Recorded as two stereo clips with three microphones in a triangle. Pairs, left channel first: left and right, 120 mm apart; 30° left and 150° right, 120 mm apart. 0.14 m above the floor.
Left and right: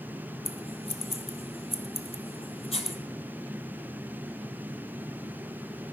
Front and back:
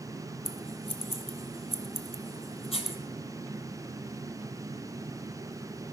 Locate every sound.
0.5 s scissors: 60° left, 0.6 m